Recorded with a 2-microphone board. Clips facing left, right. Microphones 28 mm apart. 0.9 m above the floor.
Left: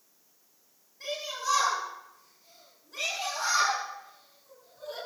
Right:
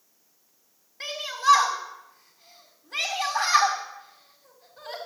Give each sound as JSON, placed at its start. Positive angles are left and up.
{"t": 1.0, "sound": "a shout", "side_deg": -60, "distance_m": 5.5}